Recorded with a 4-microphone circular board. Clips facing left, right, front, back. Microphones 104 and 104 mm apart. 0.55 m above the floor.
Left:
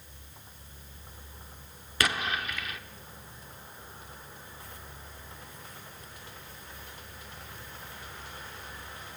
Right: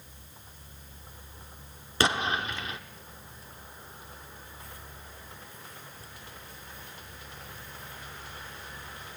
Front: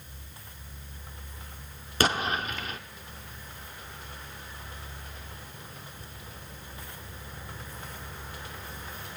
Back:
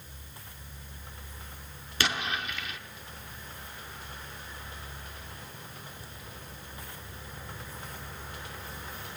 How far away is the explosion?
About 0.8 m.